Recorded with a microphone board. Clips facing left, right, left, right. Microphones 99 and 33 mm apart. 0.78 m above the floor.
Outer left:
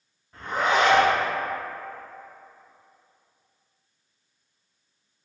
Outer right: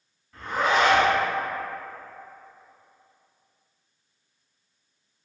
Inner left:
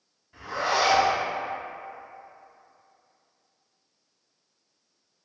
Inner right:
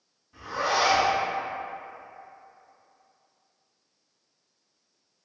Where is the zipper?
25° left (ahead or behind), 1.6 m.